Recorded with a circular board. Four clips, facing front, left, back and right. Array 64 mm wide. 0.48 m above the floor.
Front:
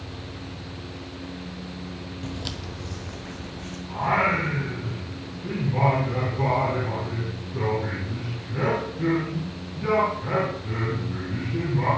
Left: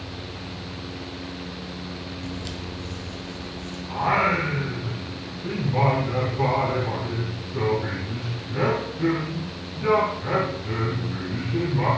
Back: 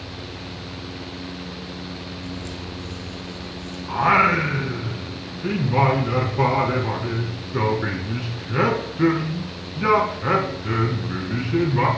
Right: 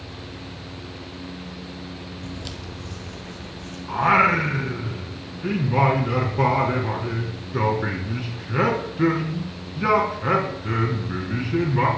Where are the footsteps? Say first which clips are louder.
Left 2 dB, even; straight ahead, 0.9 m; by 3.8 s 25° right, 2.5 m.